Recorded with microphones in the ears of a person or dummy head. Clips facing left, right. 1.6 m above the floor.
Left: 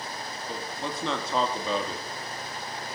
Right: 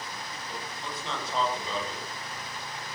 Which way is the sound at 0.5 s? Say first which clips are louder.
Left 6 dB; 60° left (ahead or behind).